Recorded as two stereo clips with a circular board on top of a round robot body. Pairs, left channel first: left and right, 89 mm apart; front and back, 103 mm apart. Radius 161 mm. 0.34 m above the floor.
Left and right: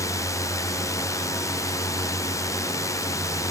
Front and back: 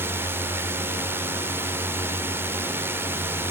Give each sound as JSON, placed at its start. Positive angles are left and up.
{"t": 0.0, "sound": "a drone", "azimuth_deg": 120}